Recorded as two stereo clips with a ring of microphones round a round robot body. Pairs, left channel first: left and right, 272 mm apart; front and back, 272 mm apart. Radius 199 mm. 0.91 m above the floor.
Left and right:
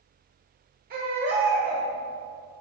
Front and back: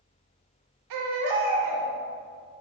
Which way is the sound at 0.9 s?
160° right.